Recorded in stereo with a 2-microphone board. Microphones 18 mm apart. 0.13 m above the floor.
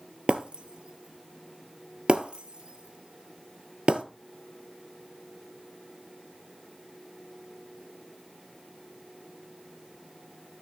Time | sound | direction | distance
0.3 | breaking glass | 65° right (ahead or behind) | 0.9 m